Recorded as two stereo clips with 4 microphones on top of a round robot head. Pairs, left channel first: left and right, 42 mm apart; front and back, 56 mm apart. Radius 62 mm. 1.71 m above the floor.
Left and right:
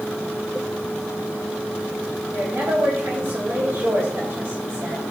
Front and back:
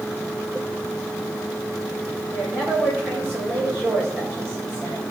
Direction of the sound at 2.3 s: 125° right.